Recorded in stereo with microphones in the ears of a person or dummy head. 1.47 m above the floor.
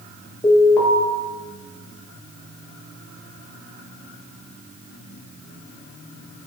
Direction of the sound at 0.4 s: 10° left (ahead or behind).